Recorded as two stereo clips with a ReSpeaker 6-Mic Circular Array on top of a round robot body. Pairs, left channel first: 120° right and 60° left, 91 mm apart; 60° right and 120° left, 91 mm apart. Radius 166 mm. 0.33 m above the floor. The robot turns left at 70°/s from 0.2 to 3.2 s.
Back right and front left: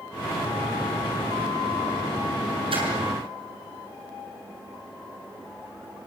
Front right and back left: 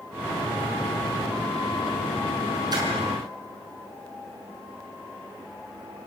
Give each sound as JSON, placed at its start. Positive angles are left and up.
{"t": 2.7, "sound": "a splash", "azimuth_deg": 75, "distance_m": 6.5}